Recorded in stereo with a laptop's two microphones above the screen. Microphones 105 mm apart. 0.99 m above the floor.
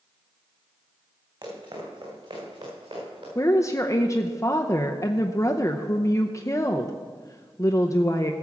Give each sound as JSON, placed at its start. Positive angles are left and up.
{"t": 1.4, "sound": "running footsteps", "side_deg": -50, "distance_m": 4.0}
{"t": 3.4, "sound": "a woman speaking", "side_deg": 30, "distance_m": 0.6}